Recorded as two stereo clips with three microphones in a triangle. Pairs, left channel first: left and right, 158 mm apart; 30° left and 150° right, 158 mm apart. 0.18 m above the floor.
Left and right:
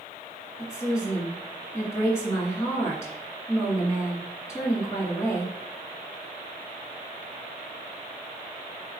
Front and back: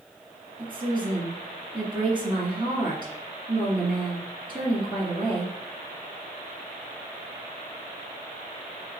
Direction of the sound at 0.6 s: 160° left.